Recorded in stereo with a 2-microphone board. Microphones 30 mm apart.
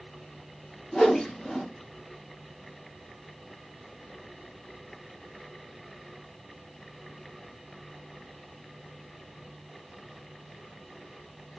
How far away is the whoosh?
About 0.8 m.